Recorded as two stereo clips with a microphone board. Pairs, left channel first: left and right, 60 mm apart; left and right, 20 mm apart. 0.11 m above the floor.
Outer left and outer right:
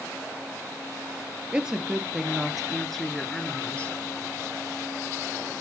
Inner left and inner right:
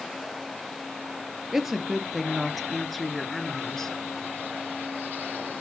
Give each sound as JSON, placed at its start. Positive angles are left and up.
{"t": 1.5, "sound": "a woman speaking", "side_deg": -15, "distance_m": 2.5}